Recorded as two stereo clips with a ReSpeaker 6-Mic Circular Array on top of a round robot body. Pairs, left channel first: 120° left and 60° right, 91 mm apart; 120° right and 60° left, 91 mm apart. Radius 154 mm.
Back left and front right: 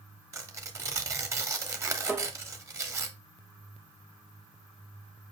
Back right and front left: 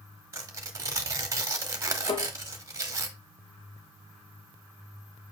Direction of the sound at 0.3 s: Straight ahead.